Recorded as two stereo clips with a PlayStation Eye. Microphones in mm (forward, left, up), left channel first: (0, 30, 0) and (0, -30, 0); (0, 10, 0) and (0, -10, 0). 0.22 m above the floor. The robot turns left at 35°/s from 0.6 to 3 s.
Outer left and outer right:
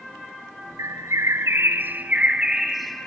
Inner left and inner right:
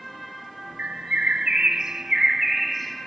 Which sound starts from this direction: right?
A bird, at 0.8 s.